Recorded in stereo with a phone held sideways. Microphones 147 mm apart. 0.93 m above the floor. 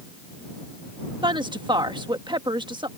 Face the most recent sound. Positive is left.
turn(degrees=-30)  # may be behind; listen again after turning